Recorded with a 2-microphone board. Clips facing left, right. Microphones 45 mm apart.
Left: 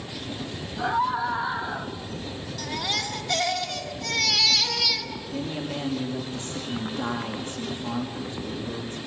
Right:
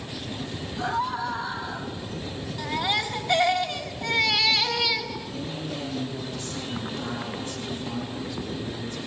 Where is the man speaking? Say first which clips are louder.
Left 2 dB; 30° left (ahead or behind), 4 m.